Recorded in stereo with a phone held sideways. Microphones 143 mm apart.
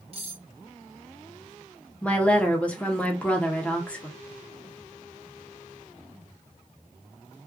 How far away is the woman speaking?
About 0.7 m.